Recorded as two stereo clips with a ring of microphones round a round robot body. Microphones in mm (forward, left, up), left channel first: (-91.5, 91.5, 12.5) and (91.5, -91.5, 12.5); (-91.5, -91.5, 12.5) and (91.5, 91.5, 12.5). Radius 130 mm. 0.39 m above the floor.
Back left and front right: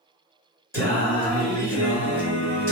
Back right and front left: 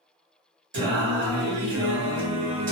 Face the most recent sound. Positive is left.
turn(degrees=60)